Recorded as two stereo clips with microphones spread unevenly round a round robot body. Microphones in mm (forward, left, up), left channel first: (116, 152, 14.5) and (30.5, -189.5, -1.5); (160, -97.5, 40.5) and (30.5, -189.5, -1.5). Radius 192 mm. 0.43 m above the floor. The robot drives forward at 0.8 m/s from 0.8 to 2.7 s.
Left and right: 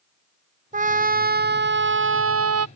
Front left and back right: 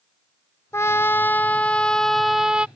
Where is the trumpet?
35° right; by 2.7 s 60° right.